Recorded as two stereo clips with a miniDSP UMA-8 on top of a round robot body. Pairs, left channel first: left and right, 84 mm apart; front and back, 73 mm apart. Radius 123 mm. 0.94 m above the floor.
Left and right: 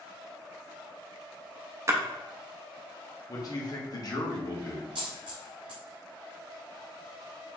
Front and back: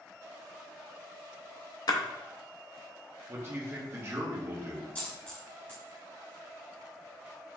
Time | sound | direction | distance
1.9 | a splash | 35° right | 0.6 m
3.3 | a man speaking | 125° left | 1.3 m
5.0 | a dropped coin | 60° right | 0.9 m